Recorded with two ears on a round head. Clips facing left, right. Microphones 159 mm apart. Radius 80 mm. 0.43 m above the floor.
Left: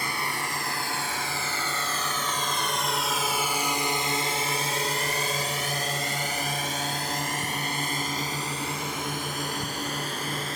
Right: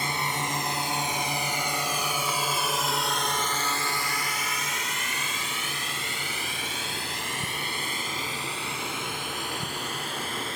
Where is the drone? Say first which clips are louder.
Right 2 dB; 20° right (ahead or behind); by 10.6 s 35° left (ahead or behind).